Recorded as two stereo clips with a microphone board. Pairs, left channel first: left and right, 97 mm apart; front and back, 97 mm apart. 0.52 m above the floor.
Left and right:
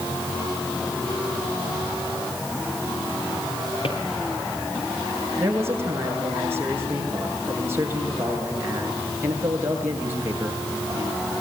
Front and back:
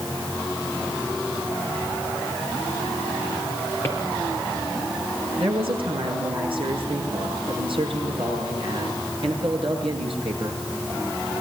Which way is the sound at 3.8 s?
65° left.